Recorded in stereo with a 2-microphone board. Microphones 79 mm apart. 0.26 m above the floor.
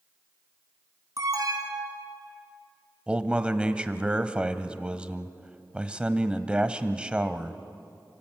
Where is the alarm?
55° right (ahead or behind), 2.5 m.